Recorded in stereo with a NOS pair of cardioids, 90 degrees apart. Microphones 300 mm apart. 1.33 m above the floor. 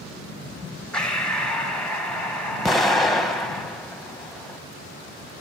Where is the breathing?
Straight ahead, 1.3 m.